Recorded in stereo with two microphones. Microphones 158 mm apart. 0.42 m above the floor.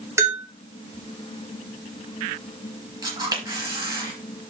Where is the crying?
No crying in this recording.